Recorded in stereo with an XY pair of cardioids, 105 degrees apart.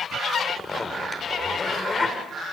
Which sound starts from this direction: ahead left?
A zipper, at 0.5 s.